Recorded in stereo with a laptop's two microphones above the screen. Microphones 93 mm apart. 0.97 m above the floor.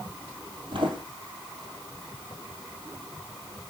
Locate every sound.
0.7 s footsteps: 60° right (ahead or behind), 2.0 m